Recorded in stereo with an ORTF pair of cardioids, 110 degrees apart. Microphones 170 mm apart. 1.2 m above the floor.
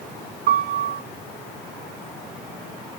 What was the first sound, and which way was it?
A piano, 65° right.